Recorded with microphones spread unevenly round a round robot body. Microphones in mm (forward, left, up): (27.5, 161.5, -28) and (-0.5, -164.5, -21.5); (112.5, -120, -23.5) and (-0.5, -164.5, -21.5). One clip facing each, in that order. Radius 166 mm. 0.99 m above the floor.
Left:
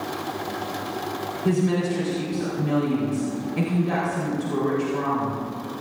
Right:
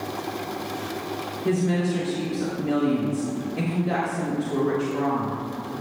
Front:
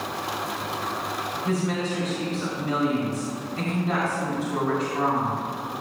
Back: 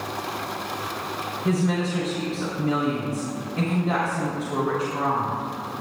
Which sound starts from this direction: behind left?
A woman speaking, at 1.4 s.